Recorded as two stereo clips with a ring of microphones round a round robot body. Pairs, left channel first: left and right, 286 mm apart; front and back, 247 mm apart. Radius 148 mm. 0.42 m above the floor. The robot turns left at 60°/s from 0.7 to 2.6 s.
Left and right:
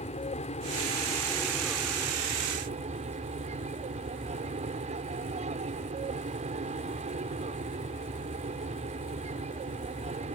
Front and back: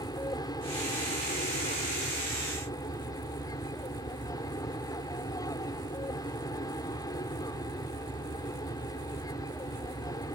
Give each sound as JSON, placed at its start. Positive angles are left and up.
{"t": 0.0, "sound": "an aircraft", "azimuth_deg": 55}